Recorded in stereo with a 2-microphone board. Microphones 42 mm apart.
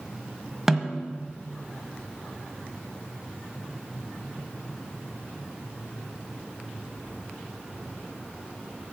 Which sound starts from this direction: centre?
A snare drum, at 0.7 s.